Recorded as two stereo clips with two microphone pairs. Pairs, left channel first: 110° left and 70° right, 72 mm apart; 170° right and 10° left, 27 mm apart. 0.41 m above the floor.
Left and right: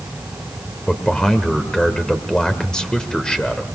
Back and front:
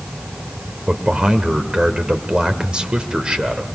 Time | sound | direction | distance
0.9 | a man speaking | 35° left | 1.8 m